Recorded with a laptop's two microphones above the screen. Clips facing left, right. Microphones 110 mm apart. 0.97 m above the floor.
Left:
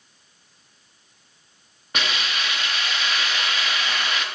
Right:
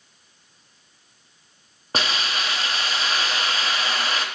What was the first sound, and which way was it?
A hiss, 35° right (ahead or behind).